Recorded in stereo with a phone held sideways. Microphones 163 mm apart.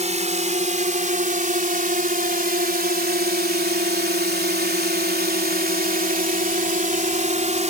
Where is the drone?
45° right (ahead or behind).